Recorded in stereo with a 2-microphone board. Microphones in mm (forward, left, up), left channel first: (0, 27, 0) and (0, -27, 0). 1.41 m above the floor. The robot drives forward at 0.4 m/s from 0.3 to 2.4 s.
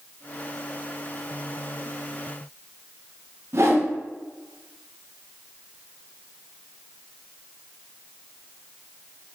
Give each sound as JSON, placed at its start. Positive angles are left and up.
{"t": 3.5, "sound": "a whoosh", "side_deg": -55, "distance_m": 0.6}